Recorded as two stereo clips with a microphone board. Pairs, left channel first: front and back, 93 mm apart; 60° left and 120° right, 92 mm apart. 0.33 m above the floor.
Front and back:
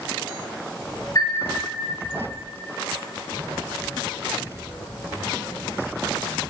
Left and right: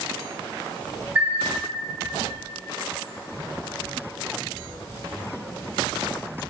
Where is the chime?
45° right, 3 m.